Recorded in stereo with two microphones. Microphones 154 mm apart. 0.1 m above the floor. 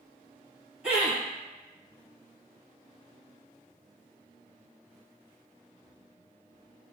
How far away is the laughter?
About 1.7 m.